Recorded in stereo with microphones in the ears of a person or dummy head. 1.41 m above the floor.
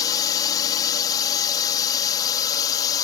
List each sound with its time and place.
0.0 s a drone: 25° left (ahead or behind)